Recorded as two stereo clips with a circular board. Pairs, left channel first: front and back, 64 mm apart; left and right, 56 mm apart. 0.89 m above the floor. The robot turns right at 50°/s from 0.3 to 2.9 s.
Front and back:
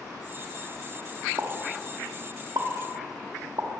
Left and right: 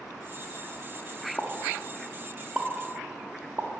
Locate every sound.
1.4 s a pop: 145° left, 0.6 m; by 3.7 s 140° right, 0.6 m